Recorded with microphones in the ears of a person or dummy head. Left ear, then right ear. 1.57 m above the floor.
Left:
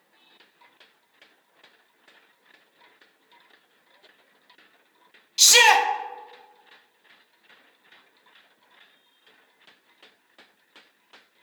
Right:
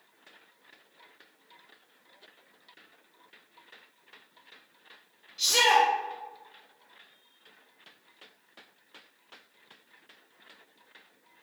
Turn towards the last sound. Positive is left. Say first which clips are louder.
# left 6 dB
turn(degrees=70)  # may be behind; listen again after turning